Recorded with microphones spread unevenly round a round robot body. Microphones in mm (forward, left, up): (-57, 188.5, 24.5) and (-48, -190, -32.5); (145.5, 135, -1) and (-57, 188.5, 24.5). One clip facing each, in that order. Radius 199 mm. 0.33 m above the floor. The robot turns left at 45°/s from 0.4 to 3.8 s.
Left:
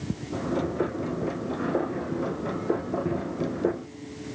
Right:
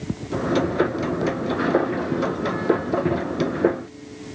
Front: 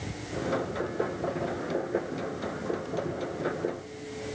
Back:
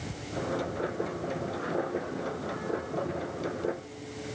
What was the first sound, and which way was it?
Only background noise.